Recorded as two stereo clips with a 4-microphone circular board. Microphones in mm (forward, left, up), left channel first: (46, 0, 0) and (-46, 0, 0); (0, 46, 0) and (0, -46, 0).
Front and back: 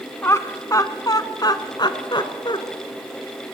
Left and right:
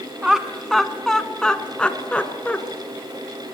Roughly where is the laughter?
Ahead.